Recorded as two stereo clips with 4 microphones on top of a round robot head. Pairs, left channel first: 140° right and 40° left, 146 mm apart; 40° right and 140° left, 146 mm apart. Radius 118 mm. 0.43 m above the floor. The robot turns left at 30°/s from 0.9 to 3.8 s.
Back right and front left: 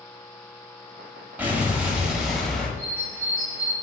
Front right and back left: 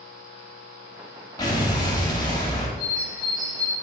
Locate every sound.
1.4 s an explosion: 25° right, 0.9 m; by 2.7 s 65° right, 0.9 m
2.8 s a bird: 125° left, 1.1 m; by 3.7 s 95° left, 1.1 m